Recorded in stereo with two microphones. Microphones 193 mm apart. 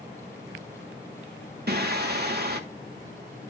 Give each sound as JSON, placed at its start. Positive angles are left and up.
{"t": 1.7, "sound": "singing", "side_deg": -55, "distance_m": 1.6}